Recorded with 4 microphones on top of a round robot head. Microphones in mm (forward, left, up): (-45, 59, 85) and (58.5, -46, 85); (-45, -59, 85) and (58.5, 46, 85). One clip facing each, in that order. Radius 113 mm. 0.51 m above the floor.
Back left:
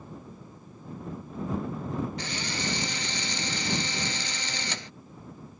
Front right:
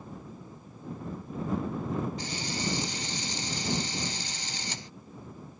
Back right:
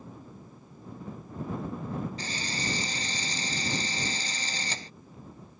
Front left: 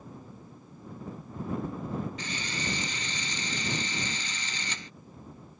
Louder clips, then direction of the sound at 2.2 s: Even, back right 1 dB; 165° left.